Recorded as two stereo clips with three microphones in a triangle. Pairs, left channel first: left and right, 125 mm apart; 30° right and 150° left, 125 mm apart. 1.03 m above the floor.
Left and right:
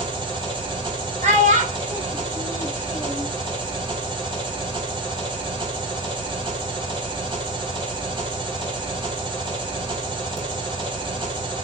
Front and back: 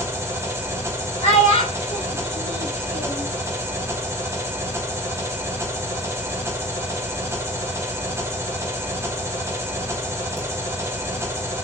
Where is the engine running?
140° right, 1.5 m.